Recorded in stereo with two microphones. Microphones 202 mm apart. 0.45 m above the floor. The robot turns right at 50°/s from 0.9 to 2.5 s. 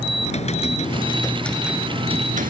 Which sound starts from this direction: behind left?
Typing on a keyboard, at 0.2 s.